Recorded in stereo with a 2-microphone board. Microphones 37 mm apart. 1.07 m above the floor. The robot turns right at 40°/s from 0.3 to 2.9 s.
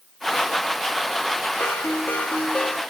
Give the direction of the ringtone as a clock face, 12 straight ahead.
9 o'clock.